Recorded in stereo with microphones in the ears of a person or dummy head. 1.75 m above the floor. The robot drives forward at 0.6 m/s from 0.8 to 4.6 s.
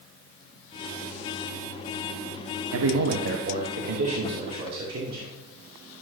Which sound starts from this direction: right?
A man speaking, at 2.7 s.